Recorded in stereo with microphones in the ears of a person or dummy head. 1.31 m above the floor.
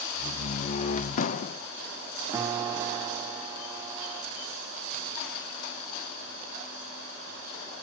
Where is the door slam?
40° left (ahead or behind), 0.6 m.